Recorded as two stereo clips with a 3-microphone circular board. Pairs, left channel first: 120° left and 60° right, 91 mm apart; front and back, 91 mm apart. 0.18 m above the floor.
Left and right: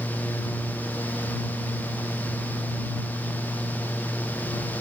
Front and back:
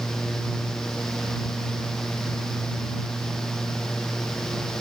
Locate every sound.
Only background noise.